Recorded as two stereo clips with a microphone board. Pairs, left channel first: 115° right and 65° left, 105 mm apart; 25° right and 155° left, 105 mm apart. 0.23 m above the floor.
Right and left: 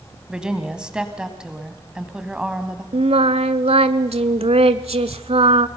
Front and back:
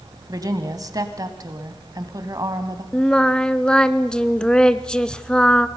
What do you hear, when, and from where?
0.3 s a woman speaking: 145° left, 1.6 m
2.9 s singing: 60° left, 0.6 m